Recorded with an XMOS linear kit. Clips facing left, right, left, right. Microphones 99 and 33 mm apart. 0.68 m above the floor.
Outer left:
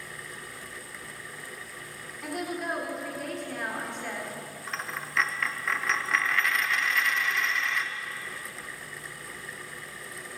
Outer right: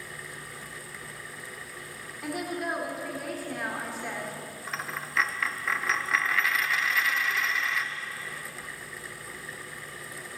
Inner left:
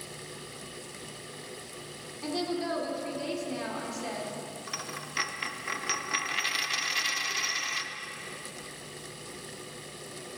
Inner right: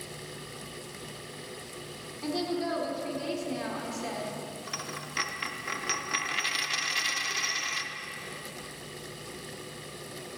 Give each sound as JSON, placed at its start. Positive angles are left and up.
{"t": 2.2, "sound": "a woman speaking", "side_deg": -5, "distance_m": 1.7}
{"t": 4.7, "sound": "a dropped coin", "side_deg": 0, "distance_m": 0.5}